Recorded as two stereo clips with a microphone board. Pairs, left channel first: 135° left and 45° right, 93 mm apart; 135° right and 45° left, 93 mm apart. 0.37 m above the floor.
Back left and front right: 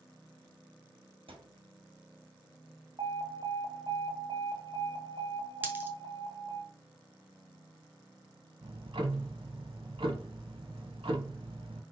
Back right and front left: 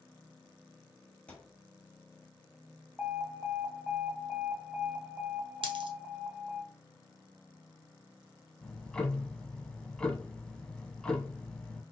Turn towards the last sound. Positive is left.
turn(degrees=-55)